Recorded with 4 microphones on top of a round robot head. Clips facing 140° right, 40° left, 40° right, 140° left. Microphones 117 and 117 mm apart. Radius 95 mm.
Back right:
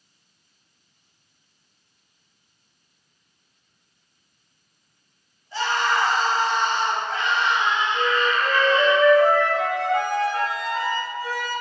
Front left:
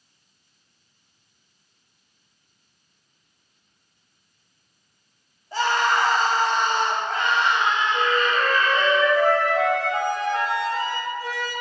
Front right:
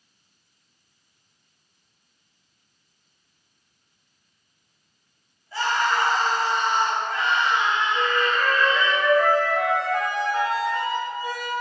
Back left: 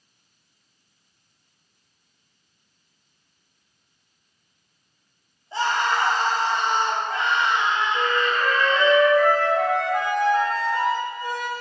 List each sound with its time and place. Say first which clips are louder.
5.5 s a scream: front left 2 dB, even; 80° left, 2.5 m
7.9 s a flute: even, even; 45° left, 2.5 m